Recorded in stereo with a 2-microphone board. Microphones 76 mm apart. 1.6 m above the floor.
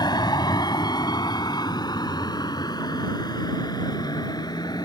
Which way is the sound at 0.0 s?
65° left (ahead or behind).